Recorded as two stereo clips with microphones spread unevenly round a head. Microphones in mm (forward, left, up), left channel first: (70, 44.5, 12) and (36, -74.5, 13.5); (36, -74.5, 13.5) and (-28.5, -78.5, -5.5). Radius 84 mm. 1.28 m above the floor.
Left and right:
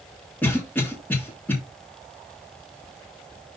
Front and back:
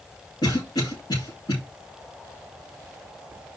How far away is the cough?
About 3.5 m.